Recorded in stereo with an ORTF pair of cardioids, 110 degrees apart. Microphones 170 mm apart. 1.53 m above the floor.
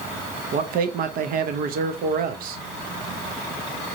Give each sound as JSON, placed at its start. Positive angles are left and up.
{"t": 0.5, "sound": "a man speaking", "azimuth_deg": -60, "distance_m": 0.7}